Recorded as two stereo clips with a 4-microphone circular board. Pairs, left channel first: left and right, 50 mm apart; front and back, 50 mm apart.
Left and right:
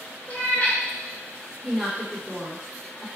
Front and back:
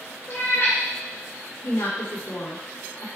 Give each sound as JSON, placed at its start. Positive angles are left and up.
{"t": 0.3, "sound": "a cat meowing", "azimuth_deg": 30, "distance_m": 2.5}
{"t": 1.6, "sound": "a woman speaking", "azimuth_deg": 0, "distance_m": 3.0}